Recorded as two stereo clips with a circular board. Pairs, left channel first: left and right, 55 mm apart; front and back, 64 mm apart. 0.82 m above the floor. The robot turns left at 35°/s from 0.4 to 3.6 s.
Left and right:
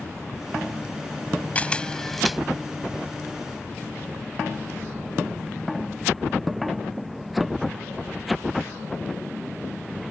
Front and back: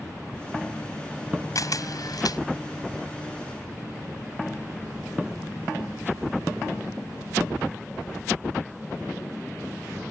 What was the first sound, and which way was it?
A camera shutter, 25° left.